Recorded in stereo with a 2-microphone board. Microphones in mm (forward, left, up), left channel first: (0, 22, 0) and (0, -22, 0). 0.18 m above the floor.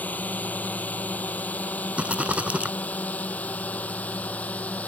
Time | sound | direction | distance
0.0 | a drone | 40° left (ahead or behind) | ?
2.0 | a rattle | 30° right (ahead or behind) | ?